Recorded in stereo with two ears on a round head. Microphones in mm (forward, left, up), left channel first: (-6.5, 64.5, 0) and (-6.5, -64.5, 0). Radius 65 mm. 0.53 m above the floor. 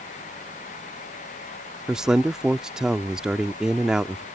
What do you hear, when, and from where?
1.9 s a man speaking: 5° right (ahead or behind)